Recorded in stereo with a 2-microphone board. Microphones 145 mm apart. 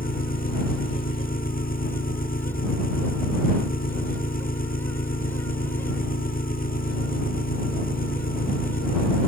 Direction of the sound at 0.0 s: 85° left.